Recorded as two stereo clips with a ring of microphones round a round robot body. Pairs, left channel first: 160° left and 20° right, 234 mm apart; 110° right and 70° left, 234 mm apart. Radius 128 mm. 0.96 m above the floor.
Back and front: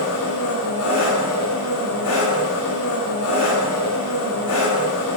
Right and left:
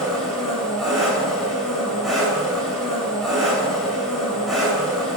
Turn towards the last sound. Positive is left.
turn(degrees=160)